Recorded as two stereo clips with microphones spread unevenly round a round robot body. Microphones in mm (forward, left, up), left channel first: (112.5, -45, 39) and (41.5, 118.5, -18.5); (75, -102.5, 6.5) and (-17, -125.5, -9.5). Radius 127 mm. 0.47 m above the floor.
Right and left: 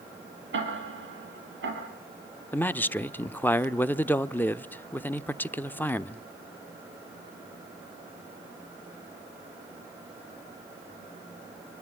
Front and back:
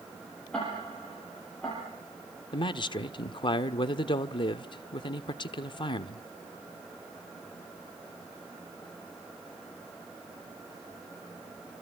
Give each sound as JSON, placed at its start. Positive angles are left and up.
{"t": 0.5, "sound": "ticking", "azimuth_deg": 100, "distance_m": 7.0}
{"t": 2.5, "sound": "a man speaking", "azimuth_deg": 35, "distance_m": 0.8}